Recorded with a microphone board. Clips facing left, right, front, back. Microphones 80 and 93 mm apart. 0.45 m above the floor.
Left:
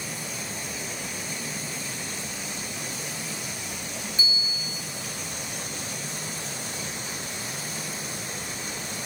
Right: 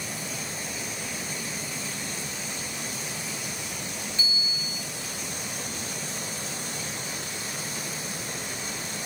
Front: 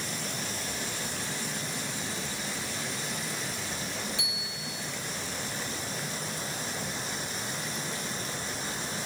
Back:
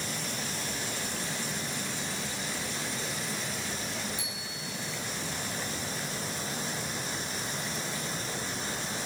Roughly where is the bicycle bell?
Ahead.